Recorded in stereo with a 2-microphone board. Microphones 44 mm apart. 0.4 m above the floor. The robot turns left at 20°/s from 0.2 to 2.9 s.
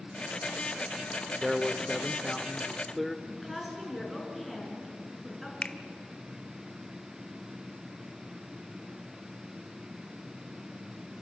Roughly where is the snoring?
I don't hear snoring.